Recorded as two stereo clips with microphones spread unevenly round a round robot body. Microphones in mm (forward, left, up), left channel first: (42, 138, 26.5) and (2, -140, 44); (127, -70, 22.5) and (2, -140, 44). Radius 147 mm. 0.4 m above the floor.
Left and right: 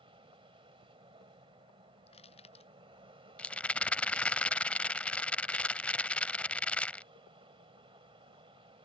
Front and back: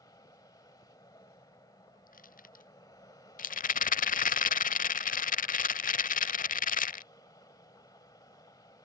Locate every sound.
0.0 s an aircraft: 30° right
2.1 s crushing: 10° left
3.4 s a rattle: 5° right